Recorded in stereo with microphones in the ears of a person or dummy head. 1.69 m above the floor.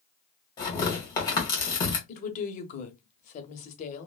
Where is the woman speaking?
45° left (ahead or behind), 0.7 m.